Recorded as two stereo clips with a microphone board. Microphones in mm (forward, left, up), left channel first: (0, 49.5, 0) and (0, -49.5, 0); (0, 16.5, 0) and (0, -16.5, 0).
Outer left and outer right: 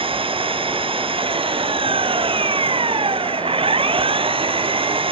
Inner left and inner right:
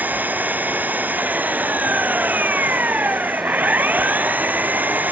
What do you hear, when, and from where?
0.0 s an engine running: 60° right (ahead or behind)